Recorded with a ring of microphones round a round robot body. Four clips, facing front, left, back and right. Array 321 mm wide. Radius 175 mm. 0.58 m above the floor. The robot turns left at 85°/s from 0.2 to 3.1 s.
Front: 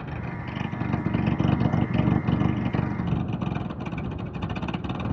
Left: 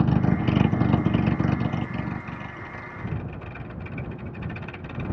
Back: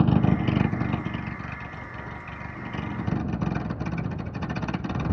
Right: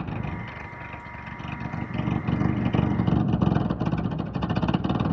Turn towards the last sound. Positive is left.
turn(degrees=-95)